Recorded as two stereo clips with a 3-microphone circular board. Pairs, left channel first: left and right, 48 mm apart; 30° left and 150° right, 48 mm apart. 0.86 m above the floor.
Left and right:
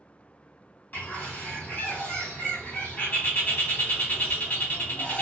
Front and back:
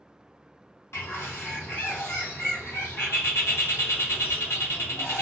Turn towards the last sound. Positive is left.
turn(degrees=40)